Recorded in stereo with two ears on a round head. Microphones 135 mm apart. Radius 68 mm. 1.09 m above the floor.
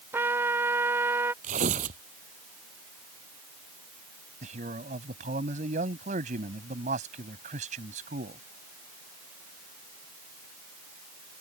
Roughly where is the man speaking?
Right.